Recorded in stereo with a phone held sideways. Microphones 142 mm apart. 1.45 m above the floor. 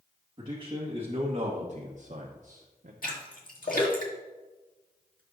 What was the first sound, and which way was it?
A man speaking, 35° right (ahead or behind).